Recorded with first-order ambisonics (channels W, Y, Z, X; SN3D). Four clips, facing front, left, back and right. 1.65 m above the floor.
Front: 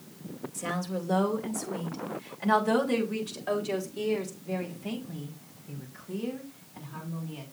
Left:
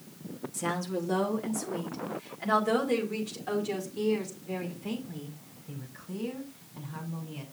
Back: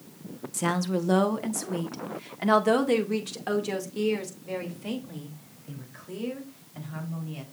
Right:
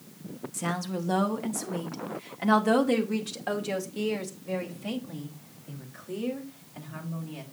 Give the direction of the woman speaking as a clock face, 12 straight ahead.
6 o'clock.